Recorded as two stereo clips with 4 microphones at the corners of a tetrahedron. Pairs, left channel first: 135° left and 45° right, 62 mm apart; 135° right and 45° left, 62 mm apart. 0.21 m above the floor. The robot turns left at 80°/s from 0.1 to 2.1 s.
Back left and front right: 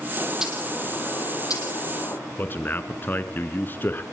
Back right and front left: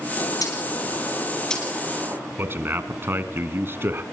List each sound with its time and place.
0.2 s a bird: 105° right, 5 m; by 2.2 s 100° left, 5 m
2.4 s a man speaking: 85° left, 2.5 m